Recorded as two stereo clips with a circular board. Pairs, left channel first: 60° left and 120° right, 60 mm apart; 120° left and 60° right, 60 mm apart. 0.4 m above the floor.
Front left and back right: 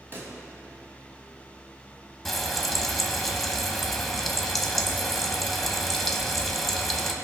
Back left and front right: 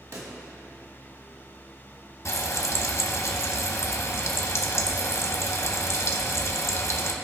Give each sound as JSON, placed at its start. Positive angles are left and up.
{"t": 0.1, "sound": "a pop", "azimuth_deg": -70, "distance_m": 1.5}
{"t": 2.2, "sound": "frying", "azimuth_deg": 145, "distance_m": 0.8}